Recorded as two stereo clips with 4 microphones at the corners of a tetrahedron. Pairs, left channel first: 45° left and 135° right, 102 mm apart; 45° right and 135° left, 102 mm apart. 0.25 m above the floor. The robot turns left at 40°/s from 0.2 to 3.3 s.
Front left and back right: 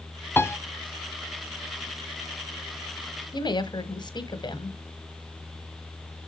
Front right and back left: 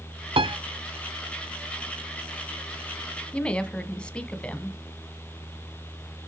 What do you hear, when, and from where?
0.4 s a piano: 115° left, 0.7 m; by 0.6 s 105° left, 0.7 m
3.3 s a woman speaking: 30° left, 1.4 m